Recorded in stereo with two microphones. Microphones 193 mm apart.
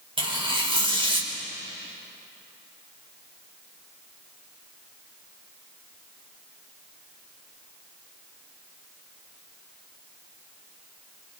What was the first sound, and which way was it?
Tearing paper, 25° right (ahead or behind).